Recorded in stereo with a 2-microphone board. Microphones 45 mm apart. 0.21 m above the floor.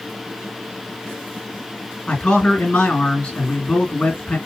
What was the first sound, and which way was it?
A man speaking, 20° left (ahead or behind).